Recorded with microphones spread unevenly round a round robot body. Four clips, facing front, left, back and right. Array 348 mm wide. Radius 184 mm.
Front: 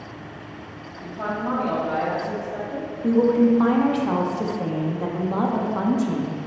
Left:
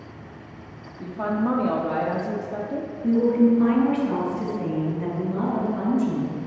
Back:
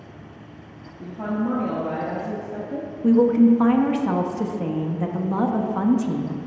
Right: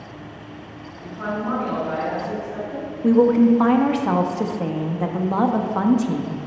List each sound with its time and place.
1.0 s a woman speaking: 120° left, 0.9 m
3.0 s a woman speaking: 100° right, 0.6 m